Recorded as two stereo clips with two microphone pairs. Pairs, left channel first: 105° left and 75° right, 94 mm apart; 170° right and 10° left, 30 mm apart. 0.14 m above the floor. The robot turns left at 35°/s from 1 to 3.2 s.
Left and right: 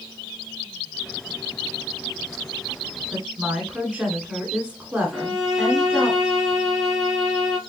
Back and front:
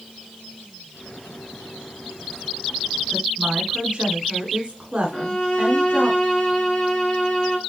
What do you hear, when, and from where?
3.1 s a woman speaking: straight ahead, 1.3 m; by 6.1 s 5° right, 1.3 m
5.1 s a violin: 160° right, 1.4 m